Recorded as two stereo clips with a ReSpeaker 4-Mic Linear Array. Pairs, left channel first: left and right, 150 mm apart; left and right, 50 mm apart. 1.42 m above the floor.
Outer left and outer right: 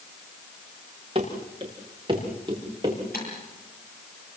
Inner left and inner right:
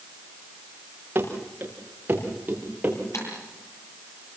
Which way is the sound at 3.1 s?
80° left.